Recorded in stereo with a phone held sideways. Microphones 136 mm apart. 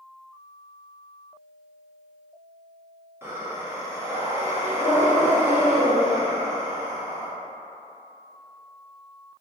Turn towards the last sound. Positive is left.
turn(degrees=-15)  # may be behind; listen again after turning